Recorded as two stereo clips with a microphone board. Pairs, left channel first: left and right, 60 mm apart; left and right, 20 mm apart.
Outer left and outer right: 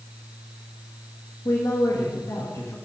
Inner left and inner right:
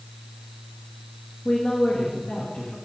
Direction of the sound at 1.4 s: 75° left (ahead or behind).